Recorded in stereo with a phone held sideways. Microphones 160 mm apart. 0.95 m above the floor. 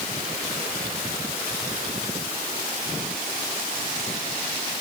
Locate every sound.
Only background noise.